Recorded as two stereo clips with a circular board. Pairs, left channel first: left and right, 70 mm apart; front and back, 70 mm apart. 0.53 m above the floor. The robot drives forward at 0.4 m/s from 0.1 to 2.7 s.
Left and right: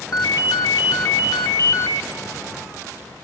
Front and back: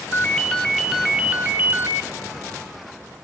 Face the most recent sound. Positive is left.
turn(degrees=145)